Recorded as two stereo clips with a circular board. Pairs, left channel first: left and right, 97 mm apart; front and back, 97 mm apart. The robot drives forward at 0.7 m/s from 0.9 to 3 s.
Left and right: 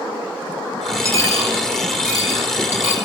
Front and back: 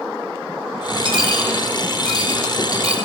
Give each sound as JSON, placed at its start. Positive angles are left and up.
{"t": 1.1, "sound": "a dropped coin", "azimuth_deg": -150, "distance_m": 5.5}